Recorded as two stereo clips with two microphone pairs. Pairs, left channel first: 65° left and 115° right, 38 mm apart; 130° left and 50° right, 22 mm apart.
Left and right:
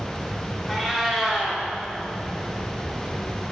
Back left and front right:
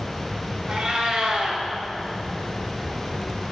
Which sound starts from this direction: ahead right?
A cat meowing, at 0.7 s.